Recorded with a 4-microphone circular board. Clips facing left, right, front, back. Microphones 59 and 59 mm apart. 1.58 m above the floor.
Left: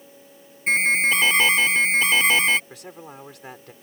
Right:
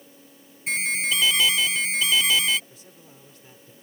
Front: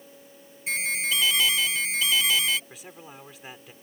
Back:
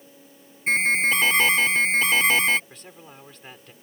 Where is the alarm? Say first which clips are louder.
Left 7 dB, back 8 dB; 135° left.